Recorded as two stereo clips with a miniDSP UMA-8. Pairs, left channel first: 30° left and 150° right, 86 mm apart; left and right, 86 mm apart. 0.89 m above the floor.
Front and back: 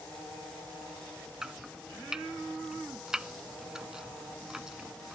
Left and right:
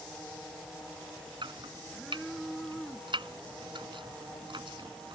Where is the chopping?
65° right.